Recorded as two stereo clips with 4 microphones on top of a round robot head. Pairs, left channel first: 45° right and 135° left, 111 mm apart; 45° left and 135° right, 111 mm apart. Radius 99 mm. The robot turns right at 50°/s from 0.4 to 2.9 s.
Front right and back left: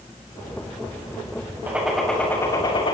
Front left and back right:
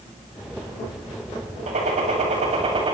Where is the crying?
No crying in this recording.